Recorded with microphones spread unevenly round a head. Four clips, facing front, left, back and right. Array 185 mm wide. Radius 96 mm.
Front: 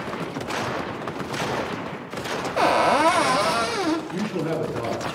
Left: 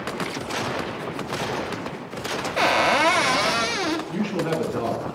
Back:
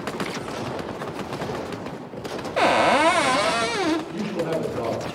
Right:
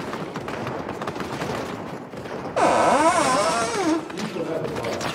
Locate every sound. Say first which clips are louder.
2.6 s a cupboard door: right 3 dB, back 1 dB; 100° right, 0.8 m
4.1 s a man speaking: left 2 dB, even; 90° left, 8.5 m